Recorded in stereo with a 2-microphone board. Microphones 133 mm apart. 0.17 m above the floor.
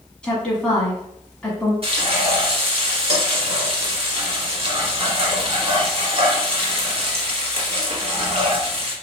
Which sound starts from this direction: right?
Frying, at 1.8 s.